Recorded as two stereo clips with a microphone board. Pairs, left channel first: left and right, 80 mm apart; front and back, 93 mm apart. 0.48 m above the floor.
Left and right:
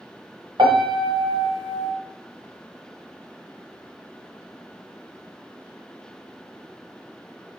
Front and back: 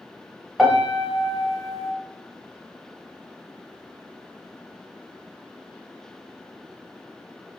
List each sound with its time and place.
0.6 s a piano: 95° right, 0.7 m